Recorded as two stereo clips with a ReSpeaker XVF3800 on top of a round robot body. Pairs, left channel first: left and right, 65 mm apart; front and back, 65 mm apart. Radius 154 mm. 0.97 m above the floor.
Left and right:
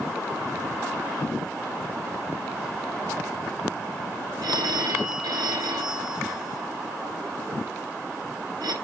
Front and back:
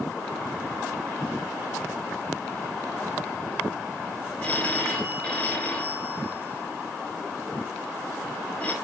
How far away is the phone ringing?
About 3 m.